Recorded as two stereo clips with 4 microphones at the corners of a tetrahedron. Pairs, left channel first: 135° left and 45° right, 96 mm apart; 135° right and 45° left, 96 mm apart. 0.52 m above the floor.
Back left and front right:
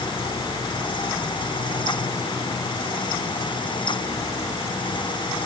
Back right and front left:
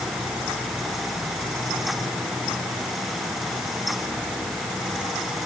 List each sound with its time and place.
Only background noise.